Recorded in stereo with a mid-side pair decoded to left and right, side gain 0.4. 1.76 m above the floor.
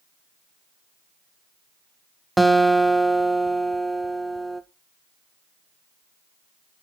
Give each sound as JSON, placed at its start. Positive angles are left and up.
{"t": 2.4, "sound": "a guitar", "azimuth_deg": -10, "distance_m": 0.8}